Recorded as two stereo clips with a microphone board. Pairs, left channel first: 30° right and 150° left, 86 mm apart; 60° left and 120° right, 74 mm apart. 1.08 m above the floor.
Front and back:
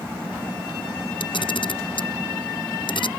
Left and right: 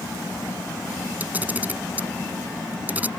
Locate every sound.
1.2 s a camera shutter: 50° right